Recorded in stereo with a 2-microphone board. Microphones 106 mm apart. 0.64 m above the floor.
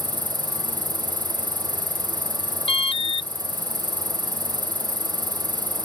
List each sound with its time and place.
0.0 s an insect: 15° left (ahead or behind)
2.7 s an alarm: 70° left (ahead or behind)